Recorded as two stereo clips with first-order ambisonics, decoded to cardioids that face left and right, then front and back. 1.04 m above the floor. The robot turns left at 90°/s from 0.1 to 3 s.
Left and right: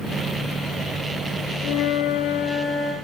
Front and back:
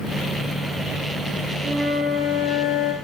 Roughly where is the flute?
Behind left.